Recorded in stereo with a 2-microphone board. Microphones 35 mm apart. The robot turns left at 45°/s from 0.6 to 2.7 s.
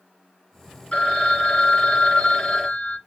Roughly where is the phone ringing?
Left.